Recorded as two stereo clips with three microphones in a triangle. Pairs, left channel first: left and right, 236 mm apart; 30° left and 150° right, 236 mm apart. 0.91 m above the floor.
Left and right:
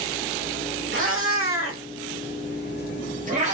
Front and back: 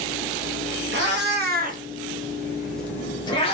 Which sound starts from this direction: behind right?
A cat meowing, at 0.9 s.